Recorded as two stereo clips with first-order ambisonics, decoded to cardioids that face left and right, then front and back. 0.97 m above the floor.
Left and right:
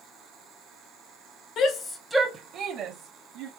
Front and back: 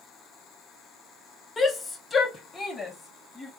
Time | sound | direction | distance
1.6 | a shout | 70° left | 0.6 m